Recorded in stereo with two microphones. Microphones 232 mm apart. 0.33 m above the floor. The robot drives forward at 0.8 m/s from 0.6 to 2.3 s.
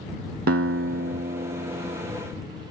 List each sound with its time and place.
0.5 s a guitar: 75° right (ahead or behind); by 2.1 s 20° right (ahead or behind)